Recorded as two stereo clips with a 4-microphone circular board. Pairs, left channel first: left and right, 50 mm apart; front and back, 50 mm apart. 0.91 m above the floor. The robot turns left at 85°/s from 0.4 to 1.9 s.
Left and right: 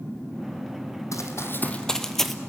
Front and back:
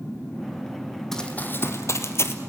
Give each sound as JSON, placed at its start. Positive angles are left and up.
{"t": 1.1, "sound": "running footsteps", "azimuth_deg": 85, "distance_m": 3.0}